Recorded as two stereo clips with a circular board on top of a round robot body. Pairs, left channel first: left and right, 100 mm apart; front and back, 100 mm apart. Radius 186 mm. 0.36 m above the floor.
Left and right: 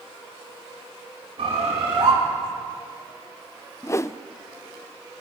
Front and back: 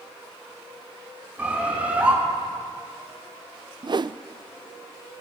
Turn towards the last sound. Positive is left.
turn(degrees=145)